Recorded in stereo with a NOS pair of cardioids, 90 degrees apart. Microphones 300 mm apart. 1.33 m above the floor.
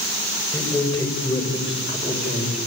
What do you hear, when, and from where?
0.5 s a man speaking: 10° left, 5.5 m; by 2.6 s 20° left, 5.5 m